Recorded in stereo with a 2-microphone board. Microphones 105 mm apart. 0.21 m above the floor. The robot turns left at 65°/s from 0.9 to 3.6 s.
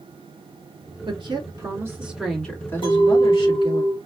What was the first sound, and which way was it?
A woman speaking, 100° right.